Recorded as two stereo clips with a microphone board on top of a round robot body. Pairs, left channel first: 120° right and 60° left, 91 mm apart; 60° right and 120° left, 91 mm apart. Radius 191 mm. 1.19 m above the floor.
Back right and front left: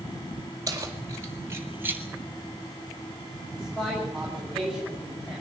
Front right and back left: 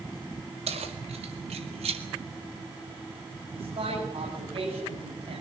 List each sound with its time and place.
0.7 s keys jangling: 115° left, 5 m; by 2.0 s 130° left, 3.5 m
3.5 s a man speaking: 150° left, 8.5 m